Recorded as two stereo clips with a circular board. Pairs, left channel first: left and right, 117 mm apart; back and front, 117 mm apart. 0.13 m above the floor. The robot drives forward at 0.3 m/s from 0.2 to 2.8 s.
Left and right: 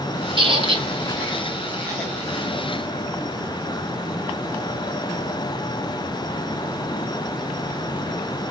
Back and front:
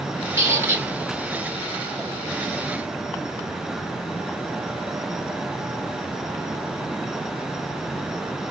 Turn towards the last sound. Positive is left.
turn(degrees=-85)